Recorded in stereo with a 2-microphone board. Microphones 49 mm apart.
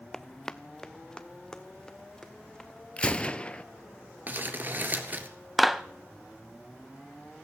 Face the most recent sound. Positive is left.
turn(degrees=0)  # may be behind; listen again after turning